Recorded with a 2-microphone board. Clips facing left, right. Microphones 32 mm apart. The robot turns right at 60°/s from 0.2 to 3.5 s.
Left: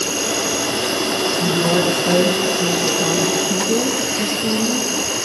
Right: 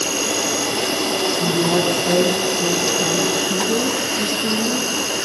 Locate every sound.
0.0 s an insect: straight ahead, 5.5 m; by 5.2 s 160° right, 5.5 m
1.4 s a woman speaking: 45° left, 6 m; by 4.9 s 175° left, 6 m